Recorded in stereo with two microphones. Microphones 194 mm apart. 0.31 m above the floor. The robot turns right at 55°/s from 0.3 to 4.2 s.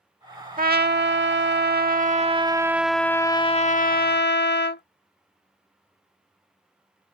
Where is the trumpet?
130° right; by 4.8 s 70° left.